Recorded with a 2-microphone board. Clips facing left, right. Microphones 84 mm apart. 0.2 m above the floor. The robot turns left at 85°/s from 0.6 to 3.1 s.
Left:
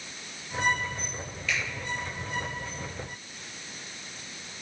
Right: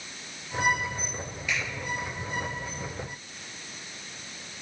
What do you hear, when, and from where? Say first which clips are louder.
1.5 s a finger snap: even; 15° right (ahead or behind), 4.5 m; by 1.6 s centre (ahead or behind), 4.5 m